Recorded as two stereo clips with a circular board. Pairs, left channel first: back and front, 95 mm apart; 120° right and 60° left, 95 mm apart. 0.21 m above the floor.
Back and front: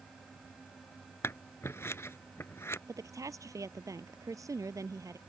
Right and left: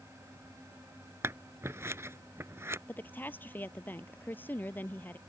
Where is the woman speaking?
50° right.